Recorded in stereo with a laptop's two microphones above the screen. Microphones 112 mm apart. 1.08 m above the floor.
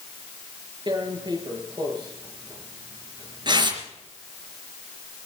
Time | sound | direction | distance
0.9 | tearing paper | 40° right (ahead or behind) | 4.5 m